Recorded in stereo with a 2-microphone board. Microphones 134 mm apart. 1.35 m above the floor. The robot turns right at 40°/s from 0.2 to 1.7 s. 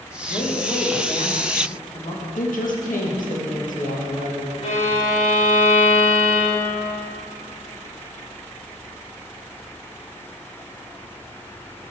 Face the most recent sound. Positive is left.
turn(degrees=55)  # may be behind; listen again after turning